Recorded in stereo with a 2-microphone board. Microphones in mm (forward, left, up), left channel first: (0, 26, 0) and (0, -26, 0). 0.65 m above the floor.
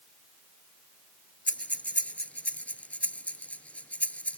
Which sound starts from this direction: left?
Breathing, at 1.5 s.